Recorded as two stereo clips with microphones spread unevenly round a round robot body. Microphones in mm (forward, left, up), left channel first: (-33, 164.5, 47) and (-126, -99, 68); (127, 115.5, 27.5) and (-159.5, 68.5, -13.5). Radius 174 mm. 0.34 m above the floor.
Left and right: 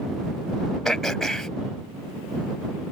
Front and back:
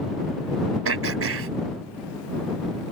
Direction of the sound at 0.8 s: 160° left.